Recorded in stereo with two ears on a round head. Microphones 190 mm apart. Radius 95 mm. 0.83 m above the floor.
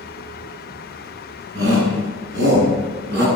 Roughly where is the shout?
Right.